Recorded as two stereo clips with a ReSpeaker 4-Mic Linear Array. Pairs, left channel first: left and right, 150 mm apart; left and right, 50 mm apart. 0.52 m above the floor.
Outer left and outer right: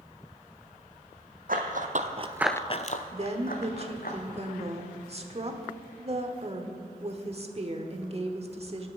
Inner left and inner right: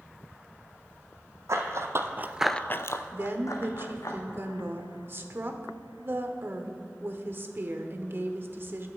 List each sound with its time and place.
1.5 s running footsteps: 70° right (ahead or behind), 1.6 m; by 4.1 s 75° left (ahead or behind), 2.5 m
3.1 s a woman speaking: 45° right (ahead or behind), 1.1 m